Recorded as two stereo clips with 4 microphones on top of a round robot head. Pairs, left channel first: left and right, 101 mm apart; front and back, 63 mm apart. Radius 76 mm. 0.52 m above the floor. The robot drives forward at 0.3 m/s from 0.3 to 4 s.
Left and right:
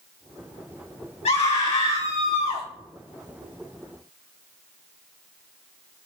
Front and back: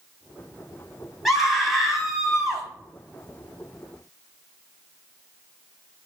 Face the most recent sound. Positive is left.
turn(degrees=100)